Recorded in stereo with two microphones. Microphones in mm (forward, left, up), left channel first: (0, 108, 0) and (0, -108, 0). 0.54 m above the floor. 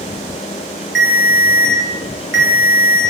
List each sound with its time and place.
0.9 s a ringtone: 55° right (ahead or behind), 1.1 m